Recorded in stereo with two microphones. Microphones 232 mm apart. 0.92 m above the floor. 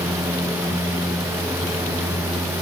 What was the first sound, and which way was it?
Only background noise.